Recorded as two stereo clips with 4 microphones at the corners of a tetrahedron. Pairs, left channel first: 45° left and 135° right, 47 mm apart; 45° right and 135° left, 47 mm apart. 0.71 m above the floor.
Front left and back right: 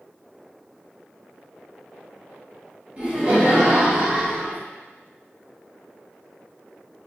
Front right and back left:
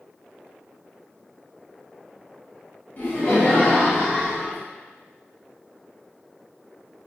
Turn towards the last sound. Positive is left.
turn(degrees=-95)